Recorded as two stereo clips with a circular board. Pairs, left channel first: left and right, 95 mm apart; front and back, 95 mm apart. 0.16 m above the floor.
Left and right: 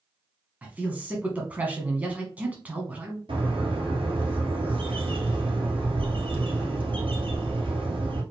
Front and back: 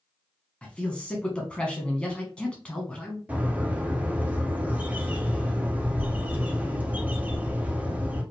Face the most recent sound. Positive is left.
turn(degrees=-105)